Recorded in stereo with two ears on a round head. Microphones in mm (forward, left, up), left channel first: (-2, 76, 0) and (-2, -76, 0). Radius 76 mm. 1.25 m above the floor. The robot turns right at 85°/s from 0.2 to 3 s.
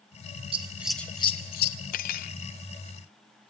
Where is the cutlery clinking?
70° left, 0.5 m; by 2.3 s 105° left, 0.5 m.